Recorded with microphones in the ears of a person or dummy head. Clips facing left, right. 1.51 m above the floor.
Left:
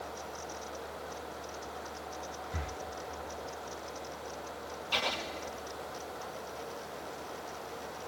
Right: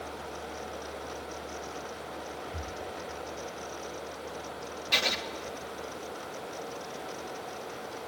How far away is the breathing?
About 0.9 m.